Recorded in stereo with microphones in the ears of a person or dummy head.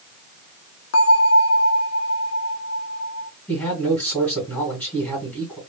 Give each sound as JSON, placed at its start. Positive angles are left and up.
{"t": 0.9, "sound": "a bell", "side_deg": 75, "distance_m": 0.7}
{"t": 3.5, "sound": "a man speaking", "side_deg": 0, "distance_m": 2.0}